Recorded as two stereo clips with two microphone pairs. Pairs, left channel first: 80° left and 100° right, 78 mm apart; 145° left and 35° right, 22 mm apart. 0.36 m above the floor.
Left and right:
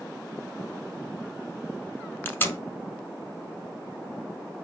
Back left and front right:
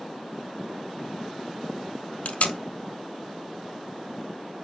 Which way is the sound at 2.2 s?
145° left.